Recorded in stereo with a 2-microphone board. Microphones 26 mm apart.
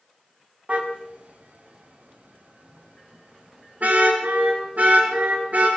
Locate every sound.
0.7 s a car horn: 50° right (ahead or behind), 4 m; by 5.7 s 85° right, 8.5 m